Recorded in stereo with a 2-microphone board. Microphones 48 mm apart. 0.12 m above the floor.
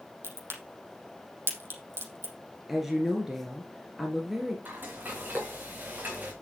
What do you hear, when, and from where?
0.2 s a crack: 60° right (ahead or behind), 4 m
2.7 s a woman speaking: 5° right (ahead or behind), 2 m
4.7 s frying: 35° right (ahead or behind), 4.5 m